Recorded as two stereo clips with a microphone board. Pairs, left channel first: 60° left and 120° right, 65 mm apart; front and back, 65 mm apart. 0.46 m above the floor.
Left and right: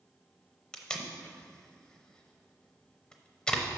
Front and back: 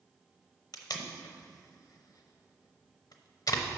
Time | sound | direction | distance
0.7 | tape being pulled | 15° right | 0.7 m